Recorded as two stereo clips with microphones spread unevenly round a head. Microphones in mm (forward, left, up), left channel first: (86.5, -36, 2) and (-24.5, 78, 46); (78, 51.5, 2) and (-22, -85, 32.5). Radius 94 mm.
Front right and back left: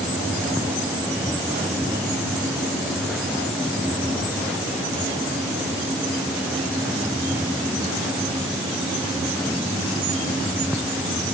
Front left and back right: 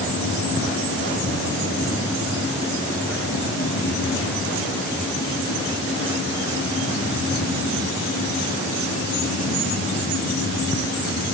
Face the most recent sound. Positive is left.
No sound to turn to.